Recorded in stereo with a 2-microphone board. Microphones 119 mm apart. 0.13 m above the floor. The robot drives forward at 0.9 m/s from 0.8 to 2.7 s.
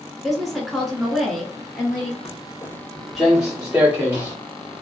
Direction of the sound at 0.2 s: Centre (ahead or behind).